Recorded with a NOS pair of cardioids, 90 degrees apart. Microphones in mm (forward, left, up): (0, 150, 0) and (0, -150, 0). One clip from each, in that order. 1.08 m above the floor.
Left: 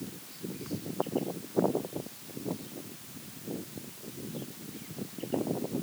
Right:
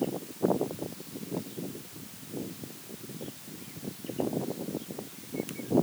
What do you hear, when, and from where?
Only background noise.